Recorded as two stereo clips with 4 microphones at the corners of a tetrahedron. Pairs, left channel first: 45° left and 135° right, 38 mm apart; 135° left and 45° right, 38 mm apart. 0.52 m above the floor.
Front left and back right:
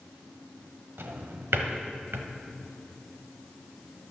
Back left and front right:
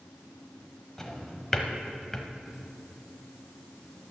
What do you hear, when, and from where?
1.0 s a drawer: 145° right, 0.9 m